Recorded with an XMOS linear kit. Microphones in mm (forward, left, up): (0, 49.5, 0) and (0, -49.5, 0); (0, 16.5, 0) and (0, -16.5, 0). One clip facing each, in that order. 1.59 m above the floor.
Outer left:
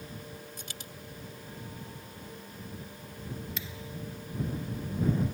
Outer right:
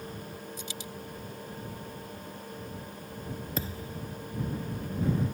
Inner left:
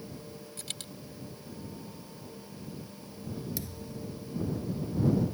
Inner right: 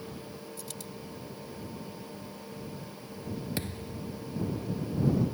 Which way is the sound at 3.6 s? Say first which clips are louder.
Outer right 5 dB, inner right 3 dB; 40° right (ahead or behind).